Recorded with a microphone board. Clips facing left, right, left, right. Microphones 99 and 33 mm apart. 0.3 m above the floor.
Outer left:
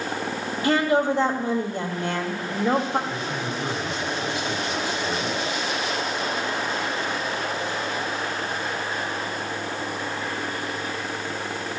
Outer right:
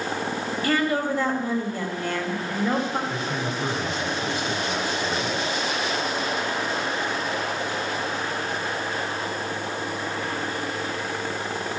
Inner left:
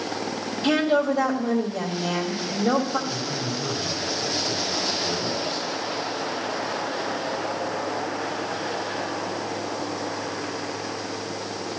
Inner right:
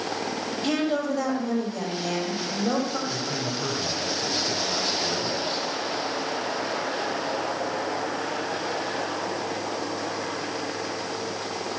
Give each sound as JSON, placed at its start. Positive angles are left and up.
{"t": 0.6, "sound": "a woman speaking", "side_deg": 20, "distance_m": 1.5}
{"t": 3.1, "sound": "a man speaking", "side_deg": -40, "distance_m": 2.0}